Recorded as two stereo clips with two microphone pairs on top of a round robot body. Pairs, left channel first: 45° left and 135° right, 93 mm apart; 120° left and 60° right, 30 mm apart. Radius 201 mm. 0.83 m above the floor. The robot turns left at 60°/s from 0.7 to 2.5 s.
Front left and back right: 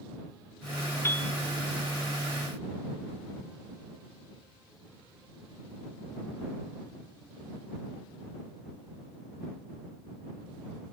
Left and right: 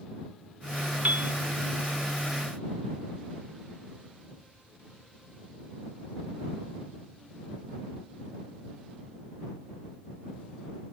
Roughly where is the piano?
Ahead.